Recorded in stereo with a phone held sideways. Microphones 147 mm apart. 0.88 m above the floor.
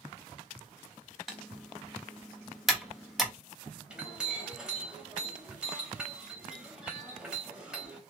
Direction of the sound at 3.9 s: 5° right (ahead or behind).